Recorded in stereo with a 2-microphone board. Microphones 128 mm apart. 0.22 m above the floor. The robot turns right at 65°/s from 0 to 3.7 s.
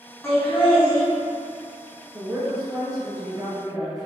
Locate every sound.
0.2 s laughter: 5° left (ahead or behind), 1.7 m; by 1.0 s 20° left (ahead or behind), 1.7 m
2.1 s a woman speaking: 5° right (ahead or behind), 1.6 m; by 4.1 s 20° right (ahead or behind), 1.6 m